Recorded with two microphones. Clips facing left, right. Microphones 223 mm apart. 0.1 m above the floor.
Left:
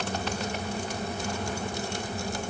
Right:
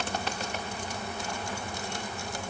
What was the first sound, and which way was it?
Only background noise.